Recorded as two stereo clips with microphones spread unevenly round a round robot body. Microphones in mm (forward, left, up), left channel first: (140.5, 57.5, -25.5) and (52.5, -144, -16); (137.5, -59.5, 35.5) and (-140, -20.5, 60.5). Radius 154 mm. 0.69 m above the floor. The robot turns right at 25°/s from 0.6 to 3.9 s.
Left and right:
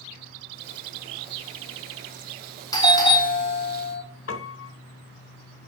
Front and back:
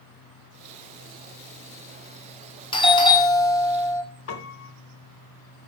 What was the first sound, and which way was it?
A doorbell, 25° left.